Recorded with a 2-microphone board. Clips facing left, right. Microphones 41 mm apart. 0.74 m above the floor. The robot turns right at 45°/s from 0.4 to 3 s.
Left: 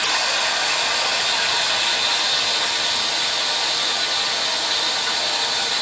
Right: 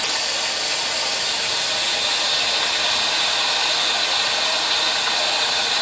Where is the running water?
90° left, 1.0 m; by 5.8 s 155° right, 1.0 m.